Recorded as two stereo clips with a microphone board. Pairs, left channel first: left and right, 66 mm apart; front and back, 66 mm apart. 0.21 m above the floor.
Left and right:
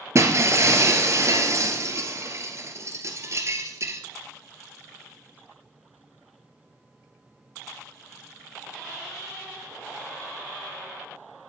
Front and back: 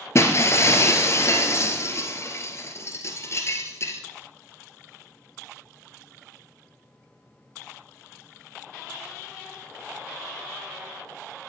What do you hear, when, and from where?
0.1 s breaking glass: 45° right, 1.8 m